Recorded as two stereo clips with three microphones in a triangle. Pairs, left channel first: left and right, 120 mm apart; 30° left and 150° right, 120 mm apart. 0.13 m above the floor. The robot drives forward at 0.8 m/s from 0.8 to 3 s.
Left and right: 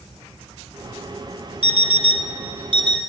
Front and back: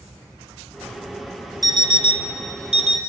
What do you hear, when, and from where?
1.6 s an alarm clock: 95° right, 1.3 m; by 3.0 s 135° right, 1.8 m